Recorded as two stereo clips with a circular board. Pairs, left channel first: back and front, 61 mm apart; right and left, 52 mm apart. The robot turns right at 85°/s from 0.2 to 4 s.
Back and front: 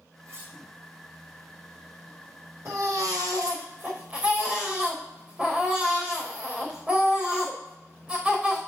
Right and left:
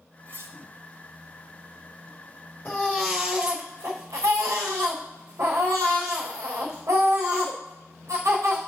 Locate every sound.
0.3 s cutlery clinking: 40° left, 3 m; by 0.5 s 60° left, 3 m
2.6 s a baby crying: 45° right, 3.5 m; by 8.6 s 70° left, 3.5 m